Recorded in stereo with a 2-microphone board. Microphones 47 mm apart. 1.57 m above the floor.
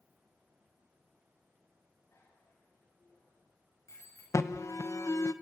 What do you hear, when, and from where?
2.1 s a bicycle bell: 75° left (ahead or behind), 7 m; by 4.2 s 85° left, 5.5 m
4.3 s an alarm: 80° left, 1.1 m